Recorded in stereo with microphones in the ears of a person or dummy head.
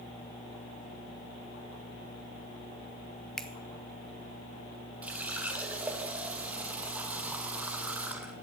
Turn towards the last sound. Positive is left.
turn(degrees=-10)  # may be behind; listen again after turning